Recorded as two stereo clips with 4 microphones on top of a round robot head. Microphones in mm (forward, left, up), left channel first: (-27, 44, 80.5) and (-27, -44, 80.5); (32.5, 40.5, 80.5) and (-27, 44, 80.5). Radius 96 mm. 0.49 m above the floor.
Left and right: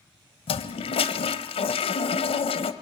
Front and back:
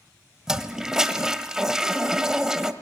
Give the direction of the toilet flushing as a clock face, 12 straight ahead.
9 o'clock.